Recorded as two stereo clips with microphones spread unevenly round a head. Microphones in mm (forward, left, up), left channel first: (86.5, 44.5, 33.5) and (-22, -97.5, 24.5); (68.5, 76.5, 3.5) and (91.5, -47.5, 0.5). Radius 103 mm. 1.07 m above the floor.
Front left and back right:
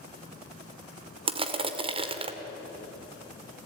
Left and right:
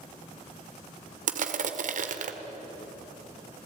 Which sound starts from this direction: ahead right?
Crushing, at 1.3 s.